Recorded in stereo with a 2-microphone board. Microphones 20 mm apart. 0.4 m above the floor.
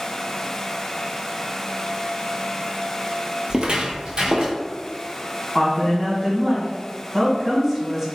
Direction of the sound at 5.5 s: 15° right (ahead or behind).